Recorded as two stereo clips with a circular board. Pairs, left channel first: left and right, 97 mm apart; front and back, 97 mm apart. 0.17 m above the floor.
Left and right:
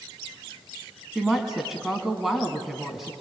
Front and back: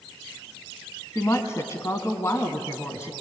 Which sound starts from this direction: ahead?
A woman speaking, at 1.1 s.